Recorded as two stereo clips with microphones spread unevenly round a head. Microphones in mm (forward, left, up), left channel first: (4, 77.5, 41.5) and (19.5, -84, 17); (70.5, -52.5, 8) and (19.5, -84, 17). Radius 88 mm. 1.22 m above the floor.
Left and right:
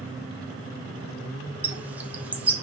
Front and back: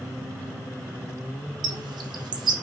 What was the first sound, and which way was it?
A bird, 165° right.